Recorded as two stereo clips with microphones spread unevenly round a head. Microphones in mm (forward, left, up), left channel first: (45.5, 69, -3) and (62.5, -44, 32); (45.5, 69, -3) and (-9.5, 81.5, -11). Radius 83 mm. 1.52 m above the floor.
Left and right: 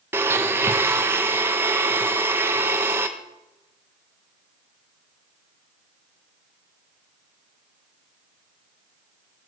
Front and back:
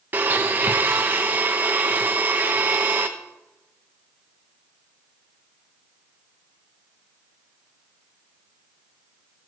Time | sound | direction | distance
0.1 | a blender | 130° right | 0.7 m